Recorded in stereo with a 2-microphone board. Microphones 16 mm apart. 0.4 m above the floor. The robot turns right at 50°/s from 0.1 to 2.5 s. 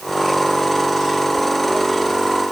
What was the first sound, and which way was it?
Only background noise.